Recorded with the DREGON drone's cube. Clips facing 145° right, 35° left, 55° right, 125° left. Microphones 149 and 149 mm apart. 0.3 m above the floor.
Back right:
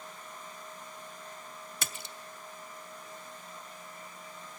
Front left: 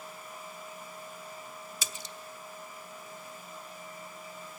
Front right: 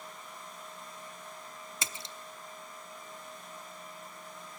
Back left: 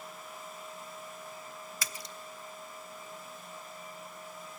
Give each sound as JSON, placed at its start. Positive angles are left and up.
{"t": 1.8, "sound": "a splash", "azimuth_deg": -120, "distance_m": 0.6}